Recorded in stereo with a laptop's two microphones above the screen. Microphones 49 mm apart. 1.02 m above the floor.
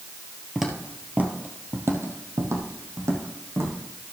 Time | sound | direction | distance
0.6 | footsteps | 5° right (ahead or behind) | 1.4 m